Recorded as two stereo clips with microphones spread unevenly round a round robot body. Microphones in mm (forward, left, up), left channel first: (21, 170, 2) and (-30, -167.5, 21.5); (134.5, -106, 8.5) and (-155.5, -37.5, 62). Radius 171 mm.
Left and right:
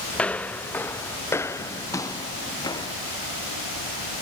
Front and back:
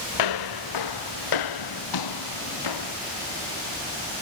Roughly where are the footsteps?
Ahead.